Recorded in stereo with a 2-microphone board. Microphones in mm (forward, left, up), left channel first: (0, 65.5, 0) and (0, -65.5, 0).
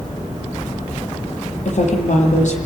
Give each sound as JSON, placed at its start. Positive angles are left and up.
{"t": 1.6, "sound": "a woman speaking", "side_deg": 65, "distance_m": 9.0}